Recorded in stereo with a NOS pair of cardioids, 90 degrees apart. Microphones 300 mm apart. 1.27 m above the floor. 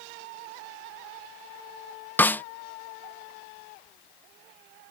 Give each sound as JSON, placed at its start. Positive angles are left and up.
{"t": 2.2, "sound": "a snare drum", "azimuth_deg": 5}